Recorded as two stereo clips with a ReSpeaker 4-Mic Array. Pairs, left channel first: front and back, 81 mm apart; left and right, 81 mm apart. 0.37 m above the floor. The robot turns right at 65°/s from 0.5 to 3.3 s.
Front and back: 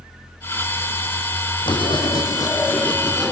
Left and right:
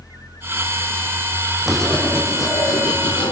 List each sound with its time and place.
1.7 s writing: 5° right, 3.5 m; by 3.3 s 100° left, 3.5 m